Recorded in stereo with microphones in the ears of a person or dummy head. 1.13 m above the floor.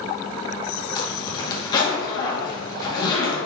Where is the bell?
No bell in this recording.